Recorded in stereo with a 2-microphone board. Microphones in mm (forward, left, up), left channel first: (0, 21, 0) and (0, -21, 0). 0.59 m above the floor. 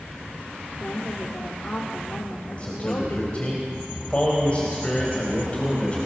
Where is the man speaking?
30° left (ahead or behind), 3.5 m.